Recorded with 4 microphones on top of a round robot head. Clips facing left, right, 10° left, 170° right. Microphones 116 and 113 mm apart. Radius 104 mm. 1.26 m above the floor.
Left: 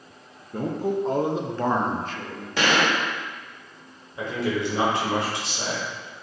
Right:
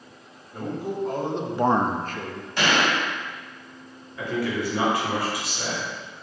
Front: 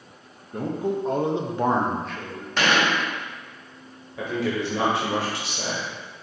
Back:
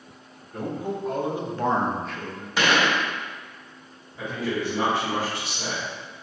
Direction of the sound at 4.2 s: 25° left.